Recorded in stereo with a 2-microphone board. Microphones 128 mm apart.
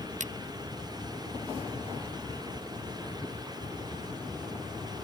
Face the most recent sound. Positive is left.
turn(degrees=-70)  # may be behind; listen again after turning